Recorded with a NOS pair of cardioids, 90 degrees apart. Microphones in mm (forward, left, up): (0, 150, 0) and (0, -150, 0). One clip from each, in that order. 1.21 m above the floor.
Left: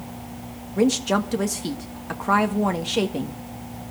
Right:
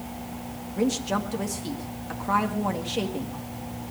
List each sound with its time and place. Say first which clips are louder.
0.8 s a woman speaking: left 5 dB; 40° left, 1.7 m